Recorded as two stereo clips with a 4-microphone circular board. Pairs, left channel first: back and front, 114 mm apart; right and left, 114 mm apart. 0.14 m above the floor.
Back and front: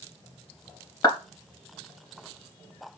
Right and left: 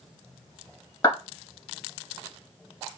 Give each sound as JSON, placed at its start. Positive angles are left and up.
{"t": 1.0, "sound": "a clap", "azimuth_deg": -130, "distance_m": 2.0}